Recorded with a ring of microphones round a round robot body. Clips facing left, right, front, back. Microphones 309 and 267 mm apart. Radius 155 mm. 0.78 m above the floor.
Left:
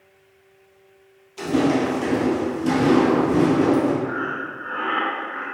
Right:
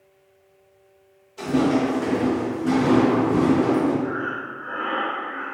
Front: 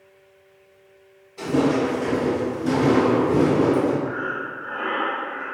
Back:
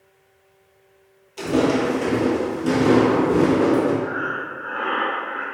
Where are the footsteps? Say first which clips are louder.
Even, back 1 dB; 155° left, 1.3 m; by 3.9 s 75° left, 1.2 m.